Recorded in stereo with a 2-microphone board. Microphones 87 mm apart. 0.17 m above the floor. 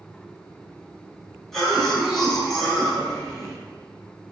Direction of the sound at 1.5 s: 5° left (ahead or behind).